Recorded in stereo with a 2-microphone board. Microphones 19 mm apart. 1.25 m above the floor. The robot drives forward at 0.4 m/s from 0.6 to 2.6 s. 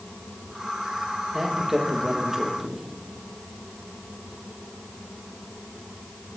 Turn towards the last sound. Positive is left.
turn(degrees=-25)  # may be behind; listen again after turning